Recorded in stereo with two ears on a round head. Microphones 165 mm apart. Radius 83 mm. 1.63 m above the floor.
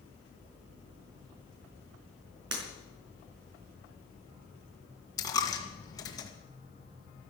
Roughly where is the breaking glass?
Right.